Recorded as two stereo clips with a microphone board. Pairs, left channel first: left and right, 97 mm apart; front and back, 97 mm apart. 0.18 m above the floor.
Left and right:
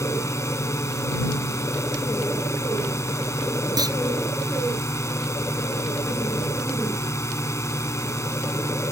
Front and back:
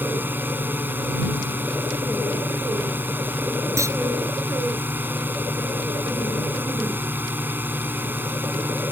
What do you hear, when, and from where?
0.0 s a drone: 125° left
3.8 s a clunk: 130° right